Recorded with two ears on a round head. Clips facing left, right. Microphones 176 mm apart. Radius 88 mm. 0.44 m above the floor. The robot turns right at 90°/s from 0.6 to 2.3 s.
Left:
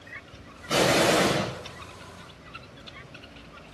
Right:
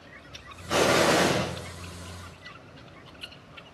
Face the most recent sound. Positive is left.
turn(degrees=-70)